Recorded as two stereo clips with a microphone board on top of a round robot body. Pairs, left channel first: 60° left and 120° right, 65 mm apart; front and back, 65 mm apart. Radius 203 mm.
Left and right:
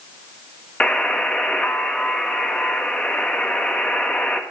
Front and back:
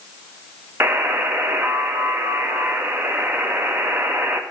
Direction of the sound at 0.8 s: 130° left.